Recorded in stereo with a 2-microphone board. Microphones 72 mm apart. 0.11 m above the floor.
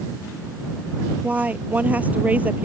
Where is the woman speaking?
20° right (ahead or behind).